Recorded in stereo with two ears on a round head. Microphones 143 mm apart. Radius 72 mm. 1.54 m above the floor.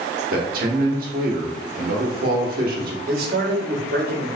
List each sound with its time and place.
0.3 s a man speaking: 60° right (ahead or behind), 0.9 m
3.1 s a man speaking: 65° right (ahead or behind), 1.1 m